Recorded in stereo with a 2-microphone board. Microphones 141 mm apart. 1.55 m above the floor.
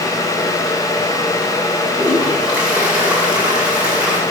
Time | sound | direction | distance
2.0 | a toilet flushing | 10° right (ahead or behind) | 7.5 m